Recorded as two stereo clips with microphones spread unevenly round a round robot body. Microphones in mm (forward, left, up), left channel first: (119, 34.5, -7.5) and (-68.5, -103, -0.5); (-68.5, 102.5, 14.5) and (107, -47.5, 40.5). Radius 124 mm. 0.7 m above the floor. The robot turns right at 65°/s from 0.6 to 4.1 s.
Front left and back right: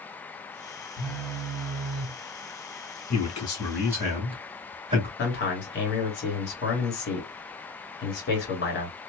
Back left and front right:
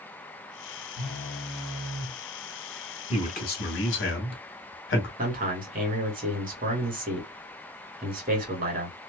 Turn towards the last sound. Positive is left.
turn(degrees=10)